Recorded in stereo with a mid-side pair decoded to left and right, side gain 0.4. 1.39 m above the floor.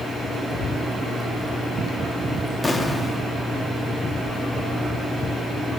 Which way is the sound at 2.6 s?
25° left.